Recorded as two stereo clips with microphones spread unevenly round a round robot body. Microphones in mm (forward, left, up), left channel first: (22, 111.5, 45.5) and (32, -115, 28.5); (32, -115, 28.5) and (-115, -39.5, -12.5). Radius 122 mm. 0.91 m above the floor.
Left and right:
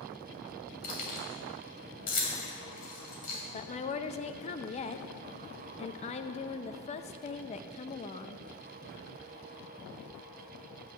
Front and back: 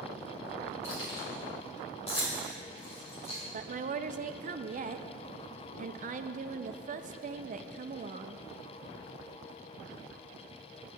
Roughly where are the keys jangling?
Ahead left.